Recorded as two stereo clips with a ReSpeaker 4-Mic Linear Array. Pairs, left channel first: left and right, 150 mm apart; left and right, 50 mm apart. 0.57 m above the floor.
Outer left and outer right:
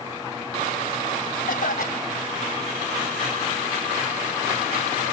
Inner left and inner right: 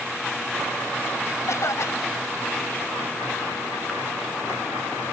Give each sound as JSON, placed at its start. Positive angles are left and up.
{"t": 1.5, "sound": "a cough", "side_deg": 70}